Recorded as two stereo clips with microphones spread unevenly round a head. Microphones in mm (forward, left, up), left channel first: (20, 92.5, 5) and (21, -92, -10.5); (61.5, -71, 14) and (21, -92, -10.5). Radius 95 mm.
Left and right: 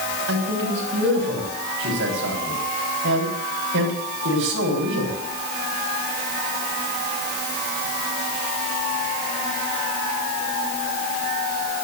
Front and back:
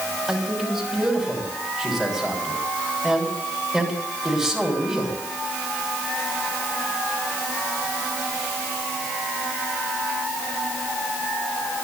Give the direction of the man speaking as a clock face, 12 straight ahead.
2 o'clock.